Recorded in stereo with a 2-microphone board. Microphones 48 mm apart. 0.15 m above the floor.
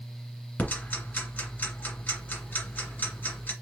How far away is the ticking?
About 1.9 m.